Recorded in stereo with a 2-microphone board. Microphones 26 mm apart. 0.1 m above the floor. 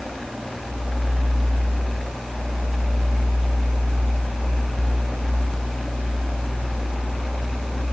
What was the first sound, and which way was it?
Only background noise.